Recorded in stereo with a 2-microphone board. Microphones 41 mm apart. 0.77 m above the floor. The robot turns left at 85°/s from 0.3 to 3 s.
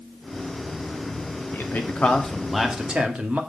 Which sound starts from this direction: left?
A man speaking, at 1.5 s.